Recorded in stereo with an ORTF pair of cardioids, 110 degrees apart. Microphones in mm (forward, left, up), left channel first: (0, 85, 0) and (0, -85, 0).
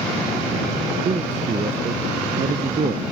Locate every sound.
1.1 s a man speaking: 45° right; by 3.0 s 50° right